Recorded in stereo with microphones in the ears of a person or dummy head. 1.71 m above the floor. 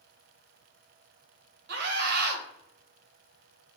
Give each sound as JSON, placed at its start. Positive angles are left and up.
{"t": 1.7, "sound": "a scream", "side_deg": -65, "distance_m": 1.9}